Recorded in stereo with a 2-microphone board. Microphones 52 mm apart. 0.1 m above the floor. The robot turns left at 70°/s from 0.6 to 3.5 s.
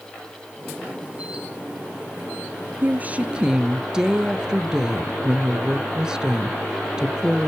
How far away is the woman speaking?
About 1.3 m.